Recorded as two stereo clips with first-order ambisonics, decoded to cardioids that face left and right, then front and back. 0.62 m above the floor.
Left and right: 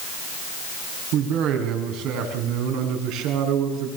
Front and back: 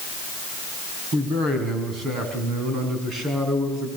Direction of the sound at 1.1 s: 120° right.